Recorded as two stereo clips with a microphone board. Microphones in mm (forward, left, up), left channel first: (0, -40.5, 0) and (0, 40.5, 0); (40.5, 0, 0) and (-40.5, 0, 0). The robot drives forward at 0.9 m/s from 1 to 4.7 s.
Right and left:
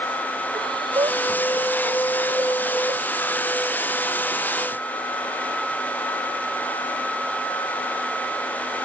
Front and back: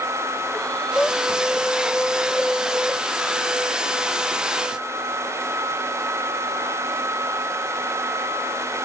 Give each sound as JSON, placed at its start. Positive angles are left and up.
{"t": 0.5, "sound": "breathing", "azimuth_deg": 75}